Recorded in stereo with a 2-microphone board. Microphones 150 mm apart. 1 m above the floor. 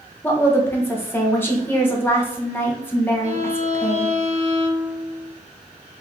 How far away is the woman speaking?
About 0.8 m.